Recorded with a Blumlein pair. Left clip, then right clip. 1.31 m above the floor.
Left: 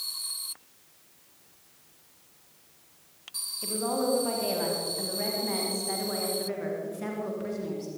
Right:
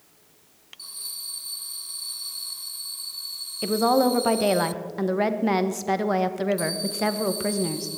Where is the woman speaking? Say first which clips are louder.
Right 9 dB; 60° right, 1.4 m.